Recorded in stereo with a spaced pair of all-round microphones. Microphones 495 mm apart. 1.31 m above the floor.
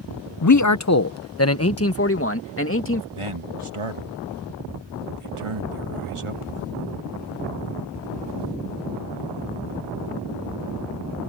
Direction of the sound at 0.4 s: 40° left (ahead or behind).